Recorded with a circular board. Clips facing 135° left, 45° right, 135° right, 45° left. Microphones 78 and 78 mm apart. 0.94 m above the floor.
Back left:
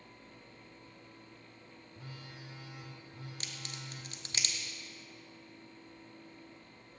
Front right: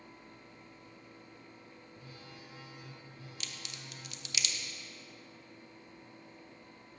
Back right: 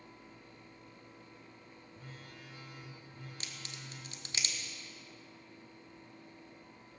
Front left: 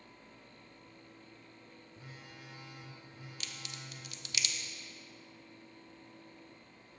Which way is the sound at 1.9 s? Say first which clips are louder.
Back left 3 dB, back right 1 dB; 130° left.